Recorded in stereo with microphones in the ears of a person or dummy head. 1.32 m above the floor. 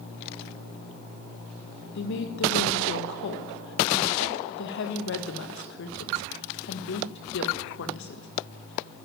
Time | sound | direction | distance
1.9 | a woman speaking | 65° left (ahead or behind) | 1.7 m